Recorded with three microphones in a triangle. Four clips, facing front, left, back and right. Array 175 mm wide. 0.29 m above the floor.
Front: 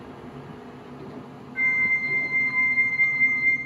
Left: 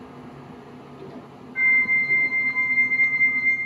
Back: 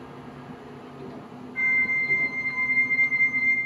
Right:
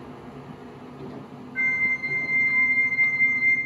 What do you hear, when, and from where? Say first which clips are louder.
1.6 s a flute: left 5 dB, front 1 dB; 125° left, 0.8 m